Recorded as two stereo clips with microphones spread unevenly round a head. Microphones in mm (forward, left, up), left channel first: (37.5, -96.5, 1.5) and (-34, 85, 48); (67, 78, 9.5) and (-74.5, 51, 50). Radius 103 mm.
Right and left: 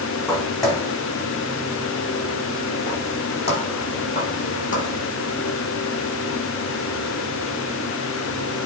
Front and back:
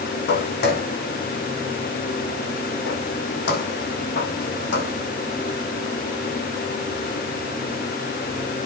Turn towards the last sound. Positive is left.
turn(degrees=-15)